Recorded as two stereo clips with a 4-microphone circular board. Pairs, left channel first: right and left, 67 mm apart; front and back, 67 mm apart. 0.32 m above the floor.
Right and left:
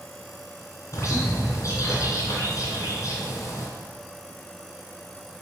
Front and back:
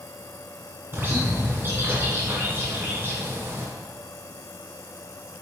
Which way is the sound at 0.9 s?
125° right.